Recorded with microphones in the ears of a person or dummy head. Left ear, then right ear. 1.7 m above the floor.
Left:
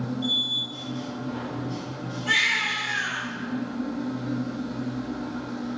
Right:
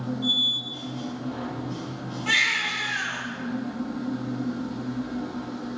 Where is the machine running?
5° left (ahead or behind), 0.9 m.